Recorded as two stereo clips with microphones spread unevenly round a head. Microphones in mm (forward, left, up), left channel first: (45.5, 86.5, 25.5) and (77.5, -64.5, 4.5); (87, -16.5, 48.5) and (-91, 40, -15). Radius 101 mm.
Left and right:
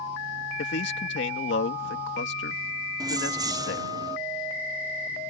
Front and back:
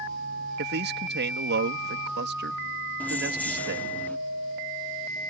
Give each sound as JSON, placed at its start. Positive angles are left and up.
{"t": 0.6, "sound": "a man speaking", "azimuth_deg": 125}
{"t": 3.0, "sound": "keys jangling", "azimuth_deg": -25}